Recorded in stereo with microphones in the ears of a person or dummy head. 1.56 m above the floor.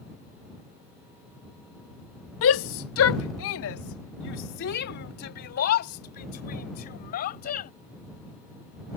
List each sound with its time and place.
2.4 s a shout: 70° left (ahead or behind); by 7.7 s 50° left (ahead or behind)